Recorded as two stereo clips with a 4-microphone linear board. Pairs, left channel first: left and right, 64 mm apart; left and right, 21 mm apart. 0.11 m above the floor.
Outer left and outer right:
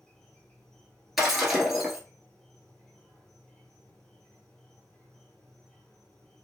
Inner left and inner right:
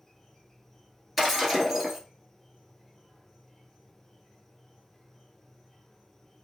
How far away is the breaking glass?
About 1.1 m.